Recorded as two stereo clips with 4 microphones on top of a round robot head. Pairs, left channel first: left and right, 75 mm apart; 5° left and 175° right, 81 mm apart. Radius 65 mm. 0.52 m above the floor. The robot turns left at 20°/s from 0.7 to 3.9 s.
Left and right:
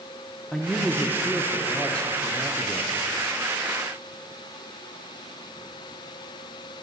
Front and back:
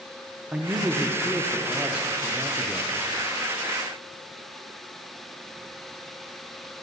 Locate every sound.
0.5 s a man speaking: 165° left, 1.0 m; by 2.9 s 125° left, 1.0 m